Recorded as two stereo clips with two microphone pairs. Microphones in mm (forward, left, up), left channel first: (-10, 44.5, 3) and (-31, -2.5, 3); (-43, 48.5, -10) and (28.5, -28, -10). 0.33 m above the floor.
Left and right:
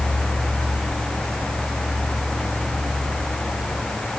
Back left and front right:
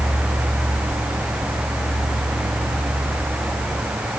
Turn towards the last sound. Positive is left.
No sound to turn to.